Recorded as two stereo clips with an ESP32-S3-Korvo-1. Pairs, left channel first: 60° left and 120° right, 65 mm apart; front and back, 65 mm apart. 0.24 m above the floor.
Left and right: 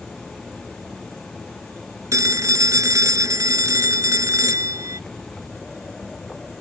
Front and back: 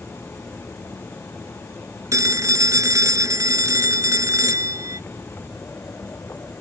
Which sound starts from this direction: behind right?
A phone ringing, at 2.1 s.